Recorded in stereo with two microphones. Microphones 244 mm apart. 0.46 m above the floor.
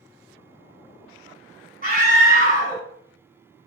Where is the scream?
35° right (ahead or behind), 2 m.